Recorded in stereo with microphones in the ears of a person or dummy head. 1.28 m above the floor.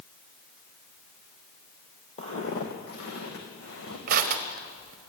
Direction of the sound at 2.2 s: 30° left (ahead or behind).